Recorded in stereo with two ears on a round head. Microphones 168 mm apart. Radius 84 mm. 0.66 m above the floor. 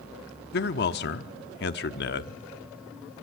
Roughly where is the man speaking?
Left.